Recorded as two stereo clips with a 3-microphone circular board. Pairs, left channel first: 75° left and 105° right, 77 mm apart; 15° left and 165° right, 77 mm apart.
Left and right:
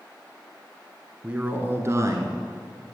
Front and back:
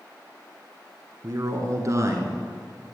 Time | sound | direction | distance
1.2 | a man speaking | 175° right | 1.4 m